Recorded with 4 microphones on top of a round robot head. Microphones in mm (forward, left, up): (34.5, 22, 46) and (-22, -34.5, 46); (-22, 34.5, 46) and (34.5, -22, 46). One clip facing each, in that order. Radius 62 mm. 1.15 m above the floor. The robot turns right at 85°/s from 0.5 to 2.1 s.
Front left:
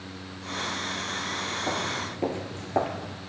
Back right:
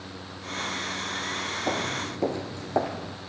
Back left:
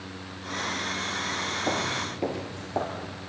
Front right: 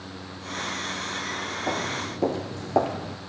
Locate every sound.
1.7 s footsteps: 150° right, 1.1 m; by 3.2 s 50° right, 1.4 m